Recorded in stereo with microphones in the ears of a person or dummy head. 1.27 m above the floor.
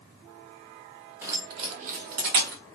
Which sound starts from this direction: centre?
Keys jangling, at 1.2 s.